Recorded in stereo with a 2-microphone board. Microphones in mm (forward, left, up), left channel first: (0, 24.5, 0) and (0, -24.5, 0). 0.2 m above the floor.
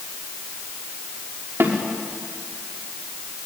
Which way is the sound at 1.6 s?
65° right (ahead or behind).